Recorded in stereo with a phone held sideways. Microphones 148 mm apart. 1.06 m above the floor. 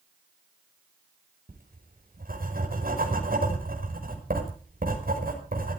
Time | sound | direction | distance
1.5 | writing | 80° right | 5.5 m